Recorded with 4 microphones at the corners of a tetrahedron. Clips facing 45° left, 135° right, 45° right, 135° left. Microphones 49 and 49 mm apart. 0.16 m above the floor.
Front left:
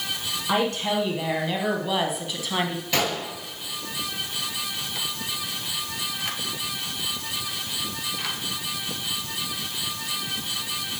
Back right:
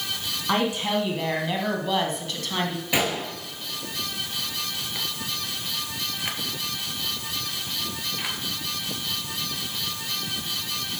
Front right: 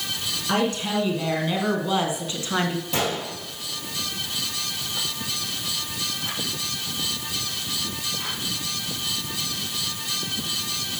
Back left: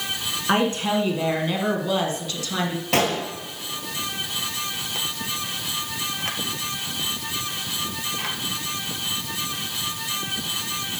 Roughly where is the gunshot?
Behind left.